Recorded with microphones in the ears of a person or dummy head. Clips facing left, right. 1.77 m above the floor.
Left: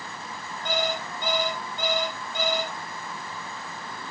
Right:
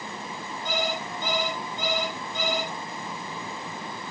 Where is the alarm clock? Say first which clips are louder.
Left 2 dB; 55° left (ahead or behind), 7 m.